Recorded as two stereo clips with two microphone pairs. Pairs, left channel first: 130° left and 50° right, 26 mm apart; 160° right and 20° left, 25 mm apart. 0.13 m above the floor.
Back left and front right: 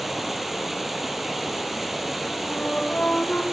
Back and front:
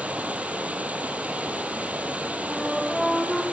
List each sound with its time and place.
0.0 s running water: 30° left, 3.5 m
2.5 s a flute: 105° left, 6.5 m